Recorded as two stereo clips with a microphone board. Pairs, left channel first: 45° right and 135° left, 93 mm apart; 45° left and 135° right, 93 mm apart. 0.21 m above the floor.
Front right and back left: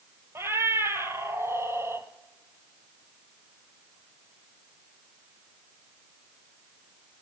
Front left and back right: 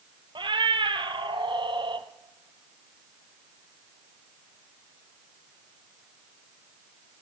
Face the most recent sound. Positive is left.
turn(degrees=-165)